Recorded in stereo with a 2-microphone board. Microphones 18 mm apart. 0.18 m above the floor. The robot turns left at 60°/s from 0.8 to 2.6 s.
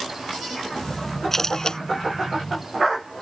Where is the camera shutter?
15° left (ahead or behind); by 1.8 s 35° left (ahead or behind).